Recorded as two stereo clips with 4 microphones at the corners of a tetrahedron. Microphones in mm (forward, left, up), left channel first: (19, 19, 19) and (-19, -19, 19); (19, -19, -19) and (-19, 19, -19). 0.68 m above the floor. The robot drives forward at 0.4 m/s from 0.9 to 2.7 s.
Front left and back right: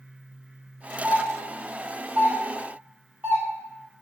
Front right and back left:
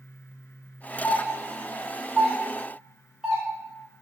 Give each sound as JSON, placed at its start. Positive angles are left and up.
{"t": 1.0, "sound": "a doorbell", "azimuth_deg": -115, "distance_m": 0.9}